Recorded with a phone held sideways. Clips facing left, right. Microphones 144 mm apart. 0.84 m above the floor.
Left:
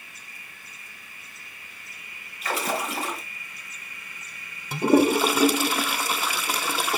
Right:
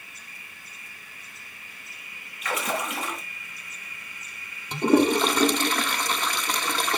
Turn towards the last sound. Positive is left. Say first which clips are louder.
# left 1 dB
turn(degrees=5)  # may be behind; listen again after turning